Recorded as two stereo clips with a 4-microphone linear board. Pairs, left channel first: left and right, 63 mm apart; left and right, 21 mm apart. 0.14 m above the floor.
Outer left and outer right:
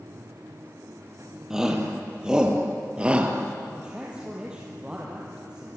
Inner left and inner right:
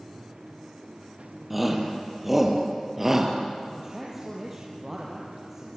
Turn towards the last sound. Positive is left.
turn(degrees=-15)  # may be behind; listen again after turning